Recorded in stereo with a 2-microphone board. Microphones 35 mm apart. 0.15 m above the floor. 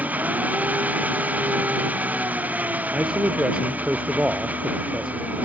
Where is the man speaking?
25° right (ahead or behind).